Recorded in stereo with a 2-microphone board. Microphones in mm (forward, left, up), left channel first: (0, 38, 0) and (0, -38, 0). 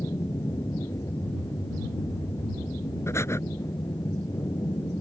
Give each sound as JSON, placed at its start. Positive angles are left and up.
{"t": 0.0, "sound": "an aircraft", "side_deg": 45}
{"t": 3.1, "sound": "breathing", "side_deg": 35}